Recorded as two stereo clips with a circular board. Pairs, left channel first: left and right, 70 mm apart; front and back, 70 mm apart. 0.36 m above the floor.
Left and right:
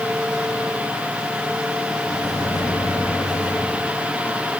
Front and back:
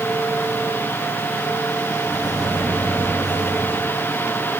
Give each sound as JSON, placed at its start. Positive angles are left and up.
{"t": 2.0, "sound": "a microwave", "azimuth_deg": 100, "distance_m": 6.0}